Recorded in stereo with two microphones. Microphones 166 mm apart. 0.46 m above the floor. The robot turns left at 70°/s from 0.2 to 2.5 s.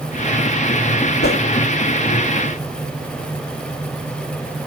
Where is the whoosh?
80° left, 0.7 m; by 1.4 s 70° left (ahead or behind), 0.7 m.